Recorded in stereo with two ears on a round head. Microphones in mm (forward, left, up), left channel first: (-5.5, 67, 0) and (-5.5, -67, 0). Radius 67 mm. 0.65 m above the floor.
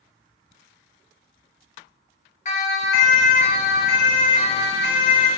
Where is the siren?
50° left (ahead or behind), 4.5 m; by 5.3 s 45° left (ahead or behind), 8.5 m.